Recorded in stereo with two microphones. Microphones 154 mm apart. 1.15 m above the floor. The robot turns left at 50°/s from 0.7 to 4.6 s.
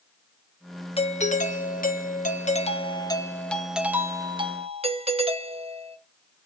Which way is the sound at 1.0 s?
135° left.